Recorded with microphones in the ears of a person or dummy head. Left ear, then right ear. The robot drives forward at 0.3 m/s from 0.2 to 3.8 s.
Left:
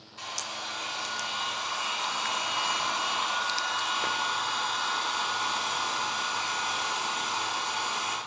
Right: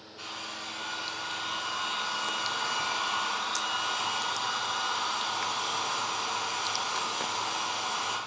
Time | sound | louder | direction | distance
0.2 | a hair dryer | left 3 dB | 55° left (ahead or behind) | 1.3 m